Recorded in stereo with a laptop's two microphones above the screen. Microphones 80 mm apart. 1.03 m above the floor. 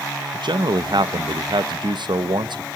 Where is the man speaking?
70° right (ahead or behind), 0.7 m.